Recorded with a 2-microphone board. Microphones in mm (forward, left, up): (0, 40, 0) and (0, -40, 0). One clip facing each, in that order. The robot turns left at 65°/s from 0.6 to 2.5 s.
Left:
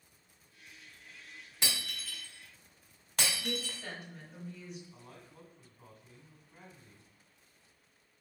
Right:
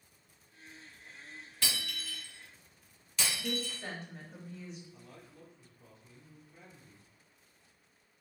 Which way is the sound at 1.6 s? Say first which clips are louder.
Even; 20° left (ahead or behind).